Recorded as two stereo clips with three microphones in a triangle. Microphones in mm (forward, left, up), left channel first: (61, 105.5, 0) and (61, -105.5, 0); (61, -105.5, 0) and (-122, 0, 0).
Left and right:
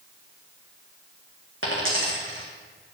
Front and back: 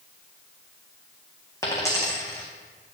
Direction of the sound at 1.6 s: 105° right.